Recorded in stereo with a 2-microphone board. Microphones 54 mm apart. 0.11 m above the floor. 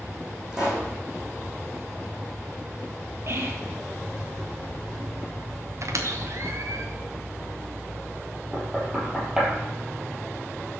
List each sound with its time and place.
0.5 s a pop: 10° right (ahead or behind), 5 m
3.3 s whispering: 50° right (ahead or behind), 3.5 m
5.8 s a squeak: 60° right (ahead or behind), 2.0 m
8.5 s knocking: 10° right (ahead or behind), 2.5 m